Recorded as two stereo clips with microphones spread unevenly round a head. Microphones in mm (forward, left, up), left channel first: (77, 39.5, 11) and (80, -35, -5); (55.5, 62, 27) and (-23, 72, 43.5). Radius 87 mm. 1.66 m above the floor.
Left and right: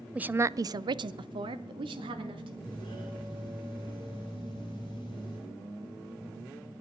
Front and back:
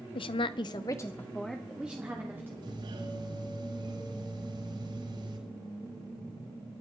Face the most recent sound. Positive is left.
turn(degrees=155)